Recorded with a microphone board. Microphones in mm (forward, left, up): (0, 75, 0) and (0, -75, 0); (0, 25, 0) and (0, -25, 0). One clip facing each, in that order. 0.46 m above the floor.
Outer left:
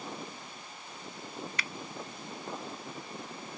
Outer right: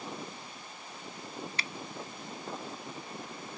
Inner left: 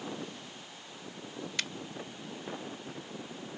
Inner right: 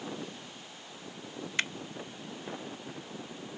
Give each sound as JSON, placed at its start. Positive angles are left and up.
{"t": 1.6, "sound": "a finger snap", "side_deg": -30}